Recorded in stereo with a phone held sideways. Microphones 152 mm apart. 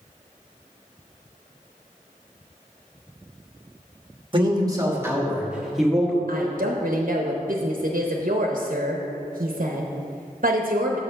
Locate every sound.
4.3 s a man speaking: 30° right (ahead or behind), 1.1 m; by 6.2 s 5° left (ahead or behind), 1.6 m
6.3 s a woman speaking: 60° right (ahead or behind), 0.7 m